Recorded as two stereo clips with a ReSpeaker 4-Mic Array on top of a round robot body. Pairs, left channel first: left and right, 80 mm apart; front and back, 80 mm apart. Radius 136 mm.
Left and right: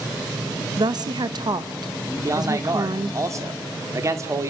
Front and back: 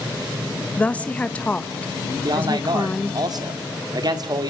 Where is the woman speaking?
75° right, 1.4 m.